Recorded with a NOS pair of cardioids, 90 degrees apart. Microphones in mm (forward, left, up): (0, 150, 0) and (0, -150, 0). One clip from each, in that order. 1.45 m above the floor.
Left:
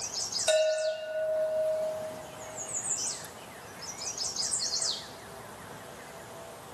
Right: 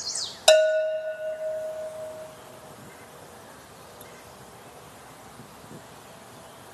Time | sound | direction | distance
0.5 | a bell | 55° right | 0.6 m